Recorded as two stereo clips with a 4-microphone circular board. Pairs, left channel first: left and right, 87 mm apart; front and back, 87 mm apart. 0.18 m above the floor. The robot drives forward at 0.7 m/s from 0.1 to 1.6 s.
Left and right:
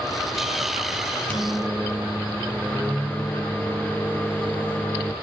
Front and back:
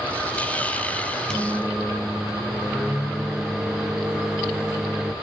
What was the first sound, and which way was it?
A microwave, 75° left.